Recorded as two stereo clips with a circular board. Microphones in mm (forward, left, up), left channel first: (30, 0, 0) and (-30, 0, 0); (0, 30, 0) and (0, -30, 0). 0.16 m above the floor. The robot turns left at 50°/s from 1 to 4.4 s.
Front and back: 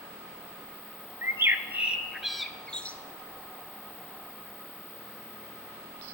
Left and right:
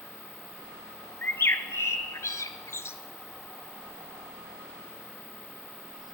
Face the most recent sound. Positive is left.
turn(degrees=-15)